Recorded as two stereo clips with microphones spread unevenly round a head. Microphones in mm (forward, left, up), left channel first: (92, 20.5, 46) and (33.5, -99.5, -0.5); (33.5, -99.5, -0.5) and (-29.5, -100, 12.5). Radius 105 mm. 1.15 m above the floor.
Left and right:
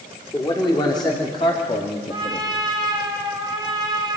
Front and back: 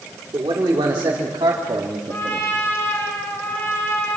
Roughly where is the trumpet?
Ahead right.